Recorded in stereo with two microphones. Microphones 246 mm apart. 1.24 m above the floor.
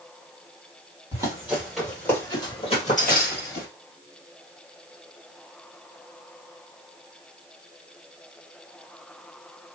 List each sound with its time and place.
1.1 s running footsteps: 15° right (ahead or behind), 2.5 m; by 3.7 s 45° left (ahead or behind), 2.5 m